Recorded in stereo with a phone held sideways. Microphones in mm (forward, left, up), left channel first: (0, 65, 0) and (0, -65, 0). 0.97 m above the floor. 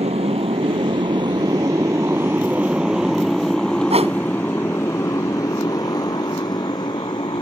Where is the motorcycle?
50° right (ahead or behind); by 7.4 s 40° left (ahead or behind).